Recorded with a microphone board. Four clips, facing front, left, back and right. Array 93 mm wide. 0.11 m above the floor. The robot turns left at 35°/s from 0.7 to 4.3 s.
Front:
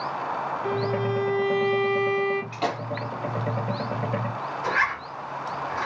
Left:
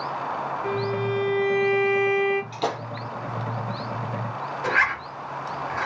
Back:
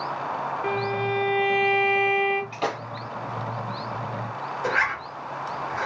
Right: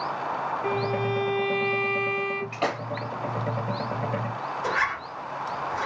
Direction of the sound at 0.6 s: 160° right.